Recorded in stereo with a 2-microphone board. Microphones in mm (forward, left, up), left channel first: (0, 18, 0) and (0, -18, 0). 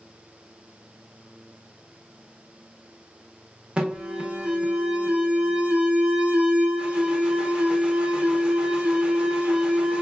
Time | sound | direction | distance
3.8 | an alarm | 30° right (ahead or behind) | 0.5 m